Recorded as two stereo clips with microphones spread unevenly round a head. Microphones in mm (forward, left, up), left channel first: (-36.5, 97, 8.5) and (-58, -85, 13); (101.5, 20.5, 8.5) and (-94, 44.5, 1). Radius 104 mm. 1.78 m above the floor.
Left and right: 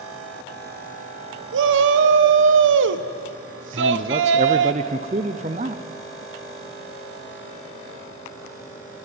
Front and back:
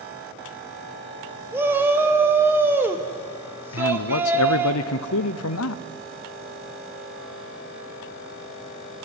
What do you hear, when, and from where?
1.5 s a shout: 105° right, 1.2 m
3.7 s a man speaking: 35° right, 0.7 m